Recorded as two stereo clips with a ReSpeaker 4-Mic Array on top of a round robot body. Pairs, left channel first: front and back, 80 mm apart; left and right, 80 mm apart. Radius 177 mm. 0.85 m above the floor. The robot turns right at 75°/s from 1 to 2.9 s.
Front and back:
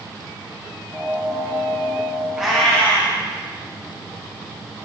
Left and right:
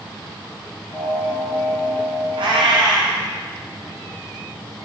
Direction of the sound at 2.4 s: 100° right.